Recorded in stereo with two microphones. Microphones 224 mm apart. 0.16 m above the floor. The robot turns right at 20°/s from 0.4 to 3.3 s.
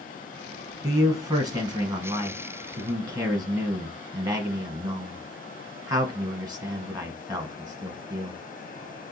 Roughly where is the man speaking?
Centre.